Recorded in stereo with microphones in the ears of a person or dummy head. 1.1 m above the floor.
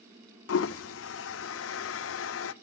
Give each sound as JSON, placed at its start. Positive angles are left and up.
{"t": 0.5, "sound": "a toilet flushing", "side_deg": 75, "distance_m": 0.5}